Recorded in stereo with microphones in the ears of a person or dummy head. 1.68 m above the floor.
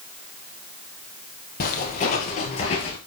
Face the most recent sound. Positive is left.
turn(degrees=30)  # may be behind; listen again after turning